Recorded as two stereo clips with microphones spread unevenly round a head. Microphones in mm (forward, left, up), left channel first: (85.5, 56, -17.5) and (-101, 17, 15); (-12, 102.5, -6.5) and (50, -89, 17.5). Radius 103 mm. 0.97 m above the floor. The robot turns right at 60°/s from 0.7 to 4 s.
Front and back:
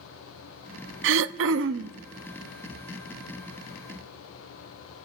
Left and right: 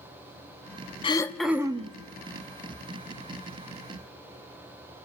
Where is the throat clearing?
Straight behind, 0.6 m; by 1.9 s 130° right, 0.6 m.